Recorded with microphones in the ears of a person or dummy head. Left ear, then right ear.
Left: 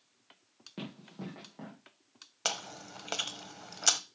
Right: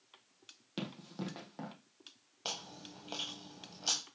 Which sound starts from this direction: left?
Chewing, at 2.5 s.